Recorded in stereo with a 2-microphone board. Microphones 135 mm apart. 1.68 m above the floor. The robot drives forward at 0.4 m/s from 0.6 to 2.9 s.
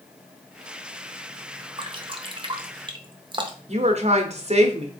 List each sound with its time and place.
1.8 s dripping: 40° right (ahead or behind), 0.6 m
3.7 s a woman speaking: 55° right (ahead or behind), 0.8 m